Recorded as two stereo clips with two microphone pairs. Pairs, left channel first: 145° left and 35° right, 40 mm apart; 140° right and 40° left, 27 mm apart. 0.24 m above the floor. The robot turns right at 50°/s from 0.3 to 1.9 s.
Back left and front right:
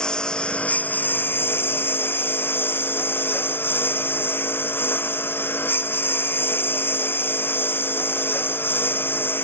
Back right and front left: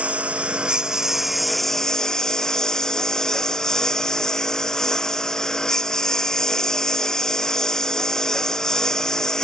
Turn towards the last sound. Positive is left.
turn(degrees=155)